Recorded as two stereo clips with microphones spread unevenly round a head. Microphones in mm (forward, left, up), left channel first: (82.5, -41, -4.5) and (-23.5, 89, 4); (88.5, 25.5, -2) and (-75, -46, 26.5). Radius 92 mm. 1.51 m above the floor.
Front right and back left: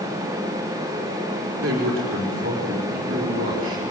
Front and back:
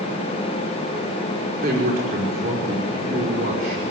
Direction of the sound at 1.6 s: 160° left.